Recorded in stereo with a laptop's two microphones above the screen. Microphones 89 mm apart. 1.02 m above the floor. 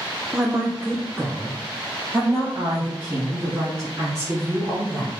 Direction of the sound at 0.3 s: 5° right (ahead or behind).